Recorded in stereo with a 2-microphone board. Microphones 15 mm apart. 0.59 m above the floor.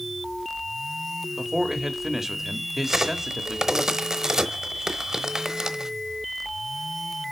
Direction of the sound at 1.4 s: 25° right (ahead or behind).